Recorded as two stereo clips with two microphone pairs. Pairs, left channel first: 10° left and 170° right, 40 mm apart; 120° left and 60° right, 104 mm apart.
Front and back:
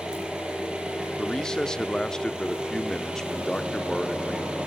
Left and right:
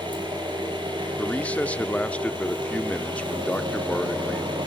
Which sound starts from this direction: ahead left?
A man speaking, at 1.2 s.